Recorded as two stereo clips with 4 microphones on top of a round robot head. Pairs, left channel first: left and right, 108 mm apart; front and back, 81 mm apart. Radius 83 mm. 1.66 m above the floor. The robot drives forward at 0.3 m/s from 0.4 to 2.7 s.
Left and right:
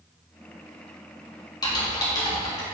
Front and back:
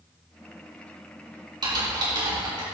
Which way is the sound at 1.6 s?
145° left.